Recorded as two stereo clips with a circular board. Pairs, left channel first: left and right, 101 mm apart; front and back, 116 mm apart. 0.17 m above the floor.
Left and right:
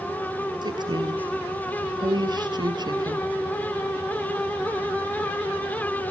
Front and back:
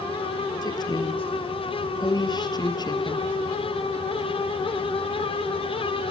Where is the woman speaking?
50° right, 3 m.